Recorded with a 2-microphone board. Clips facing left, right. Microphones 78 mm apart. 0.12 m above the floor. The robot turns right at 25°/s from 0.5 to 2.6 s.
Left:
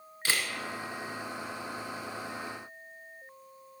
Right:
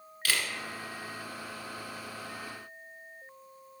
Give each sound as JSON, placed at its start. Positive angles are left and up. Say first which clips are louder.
{"t": 0.2, "sound": "a camera shutter", "louder": "even", "side_deg": 25, "distance_m": 1.1}